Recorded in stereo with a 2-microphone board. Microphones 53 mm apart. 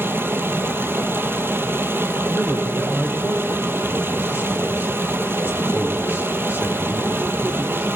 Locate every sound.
0.0 s running water: 45° right (ahead or behind), 1.2 m
2.3 s a man speaking: 35° right (ahead or behind), 3.5 m